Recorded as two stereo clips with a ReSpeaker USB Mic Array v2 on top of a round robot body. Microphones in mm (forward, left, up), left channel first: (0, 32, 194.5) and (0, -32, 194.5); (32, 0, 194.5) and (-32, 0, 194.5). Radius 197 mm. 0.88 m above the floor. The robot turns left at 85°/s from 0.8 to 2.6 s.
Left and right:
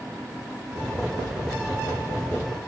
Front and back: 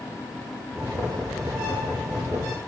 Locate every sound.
Only background noise.